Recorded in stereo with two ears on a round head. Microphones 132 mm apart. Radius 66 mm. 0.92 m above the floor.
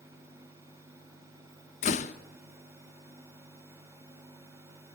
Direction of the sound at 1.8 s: 50° left (ahead or behind).